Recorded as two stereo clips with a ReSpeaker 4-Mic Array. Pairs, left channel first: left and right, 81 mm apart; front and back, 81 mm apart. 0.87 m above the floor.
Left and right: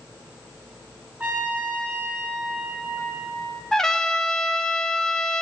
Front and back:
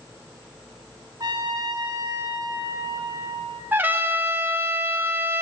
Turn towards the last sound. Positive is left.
turn(degrees=170)